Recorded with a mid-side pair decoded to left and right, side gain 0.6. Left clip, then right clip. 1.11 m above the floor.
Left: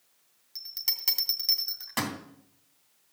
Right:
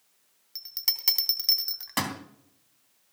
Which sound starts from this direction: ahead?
A bell, at 0.6 s.